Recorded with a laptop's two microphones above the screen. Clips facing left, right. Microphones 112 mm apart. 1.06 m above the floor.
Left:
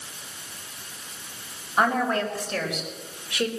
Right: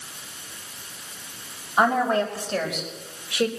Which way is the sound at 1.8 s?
5° right (ahead or behind).